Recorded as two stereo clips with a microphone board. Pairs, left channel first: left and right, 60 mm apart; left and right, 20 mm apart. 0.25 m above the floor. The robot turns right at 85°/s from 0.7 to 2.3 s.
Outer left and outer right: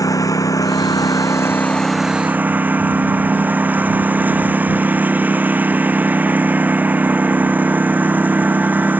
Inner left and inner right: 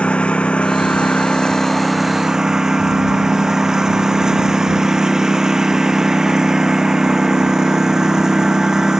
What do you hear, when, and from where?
0.0 s a lawn mower: 70° left; by 9.0 s 150° right